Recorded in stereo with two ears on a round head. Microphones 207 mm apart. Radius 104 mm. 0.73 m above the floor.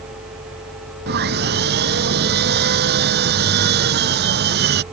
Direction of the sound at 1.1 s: 45° right (ahead or behind).